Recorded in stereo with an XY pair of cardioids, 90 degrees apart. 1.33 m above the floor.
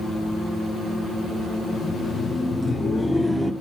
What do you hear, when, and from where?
1.7 s laughter: 50° left, 1.1 m; by 3.5 s 5° left, 1.5 m